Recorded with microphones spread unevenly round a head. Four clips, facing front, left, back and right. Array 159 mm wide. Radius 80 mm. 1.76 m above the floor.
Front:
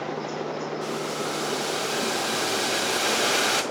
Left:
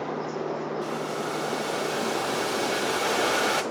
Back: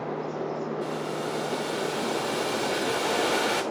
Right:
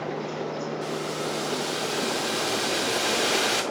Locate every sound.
0.8 s boiling: 115° left, 0.8 m